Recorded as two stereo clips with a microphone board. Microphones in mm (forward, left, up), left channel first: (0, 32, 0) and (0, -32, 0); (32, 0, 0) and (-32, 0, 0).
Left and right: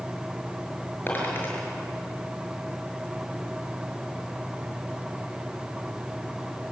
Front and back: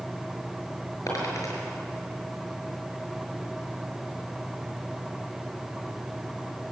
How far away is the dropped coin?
About 6.5 m.